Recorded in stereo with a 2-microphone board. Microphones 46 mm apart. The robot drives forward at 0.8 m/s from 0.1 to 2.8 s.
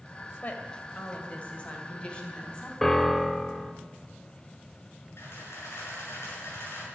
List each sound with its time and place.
0.4 s a woman speaking: 35° left (ahead or behind), 2.5 m; by 2.7 s 20° left (ahead or behind), 4 m
2.8 s a piano: 10° left (ahead or behind), 0.8 m
5.2 s a camera shutter: 70° left (ahead or behind), 6 m